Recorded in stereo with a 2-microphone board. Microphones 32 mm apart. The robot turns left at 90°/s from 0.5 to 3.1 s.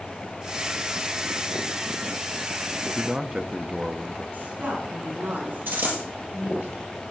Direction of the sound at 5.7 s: 80° right.